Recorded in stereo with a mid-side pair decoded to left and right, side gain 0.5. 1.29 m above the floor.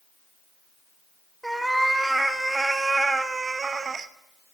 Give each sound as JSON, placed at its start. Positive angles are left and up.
{"t": 1.4, "sound": "a cat meowing", "azimuth_deg": -5, "distance_m": 1.9}